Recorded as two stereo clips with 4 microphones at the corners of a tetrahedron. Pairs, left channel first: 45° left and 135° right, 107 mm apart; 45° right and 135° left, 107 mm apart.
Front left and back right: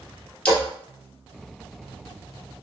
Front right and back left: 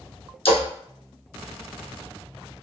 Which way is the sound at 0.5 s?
35° right.